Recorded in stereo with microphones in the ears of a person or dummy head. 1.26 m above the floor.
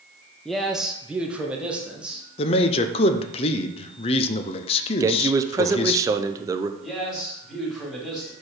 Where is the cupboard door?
I don't hear a cupboard door.